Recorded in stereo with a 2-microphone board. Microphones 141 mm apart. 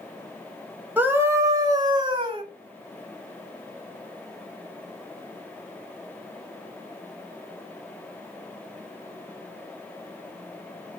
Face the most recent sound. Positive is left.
turn(degrees=-40)  # may be behind; listen again after turning